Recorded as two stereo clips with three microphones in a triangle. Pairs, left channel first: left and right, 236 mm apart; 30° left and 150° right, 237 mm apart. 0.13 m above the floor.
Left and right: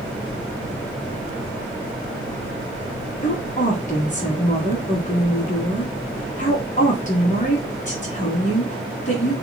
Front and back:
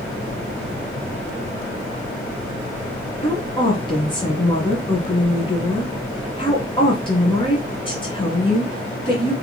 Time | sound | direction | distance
3.2 | a woman speaking | 80° left | 1.5 m